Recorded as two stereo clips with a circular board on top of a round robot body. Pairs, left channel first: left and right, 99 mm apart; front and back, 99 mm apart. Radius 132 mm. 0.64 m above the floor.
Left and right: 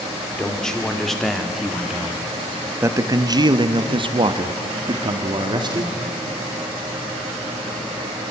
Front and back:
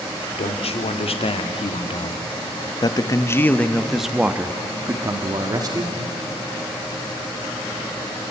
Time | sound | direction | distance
0.4 | a man speaking | 5° left | 1.9 m